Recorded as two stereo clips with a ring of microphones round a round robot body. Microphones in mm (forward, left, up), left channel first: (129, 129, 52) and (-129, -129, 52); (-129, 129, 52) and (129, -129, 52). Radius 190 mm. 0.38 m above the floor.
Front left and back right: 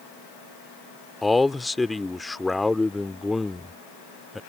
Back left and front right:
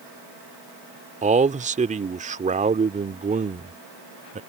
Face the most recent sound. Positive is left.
turn(degrees=-45)